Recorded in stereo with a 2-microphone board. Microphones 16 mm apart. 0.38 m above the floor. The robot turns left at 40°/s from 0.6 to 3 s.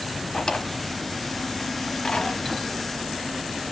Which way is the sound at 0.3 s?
55° left (ahead or behind).